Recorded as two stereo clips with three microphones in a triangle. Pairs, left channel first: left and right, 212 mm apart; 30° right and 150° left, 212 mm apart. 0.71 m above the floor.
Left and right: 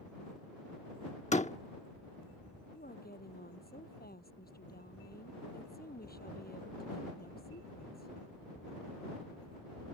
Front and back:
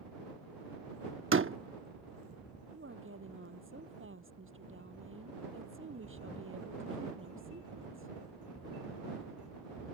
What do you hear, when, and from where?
1.3 s a door slam: 145° left
2.7 s a woman speaking: 135° left